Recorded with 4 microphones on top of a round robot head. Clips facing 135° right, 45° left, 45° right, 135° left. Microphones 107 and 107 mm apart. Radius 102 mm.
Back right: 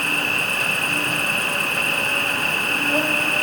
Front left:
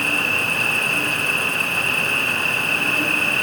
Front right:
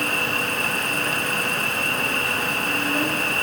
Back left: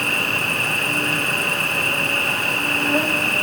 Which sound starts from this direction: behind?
An insect, at 0.0 s.